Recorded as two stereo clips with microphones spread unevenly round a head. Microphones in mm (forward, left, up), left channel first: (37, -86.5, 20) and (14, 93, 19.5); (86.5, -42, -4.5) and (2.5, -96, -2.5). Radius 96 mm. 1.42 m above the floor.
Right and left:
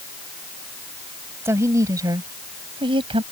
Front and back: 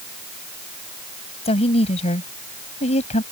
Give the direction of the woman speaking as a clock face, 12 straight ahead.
11 o'clock.